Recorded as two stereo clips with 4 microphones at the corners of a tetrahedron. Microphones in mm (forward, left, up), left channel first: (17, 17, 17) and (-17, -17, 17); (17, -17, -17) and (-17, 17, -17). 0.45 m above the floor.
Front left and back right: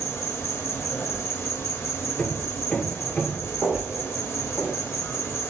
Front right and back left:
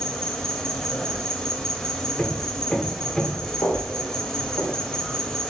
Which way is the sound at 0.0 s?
30° left.